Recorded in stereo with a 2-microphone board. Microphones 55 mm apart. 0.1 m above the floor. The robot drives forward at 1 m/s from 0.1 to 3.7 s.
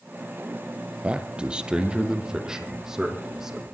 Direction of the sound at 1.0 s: 20° right (ahead or behind).